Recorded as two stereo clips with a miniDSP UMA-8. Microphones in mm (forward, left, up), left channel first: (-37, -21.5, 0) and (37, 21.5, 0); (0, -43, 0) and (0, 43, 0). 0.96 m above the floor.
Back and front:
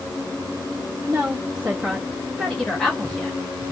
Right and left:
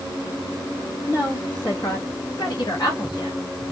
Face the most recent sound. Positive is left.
turn(degrees=-80)